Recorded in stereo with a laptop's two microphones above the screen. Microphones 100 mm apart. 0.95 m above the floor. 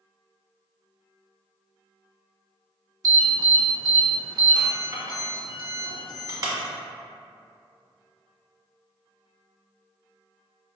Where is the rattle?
I don't hear a rattle.